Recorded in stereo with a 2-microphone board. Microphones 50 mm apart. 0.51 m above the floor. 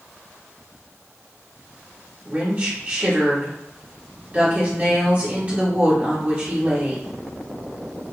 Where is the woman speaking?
30° right (ahead or behind), 1.3 m.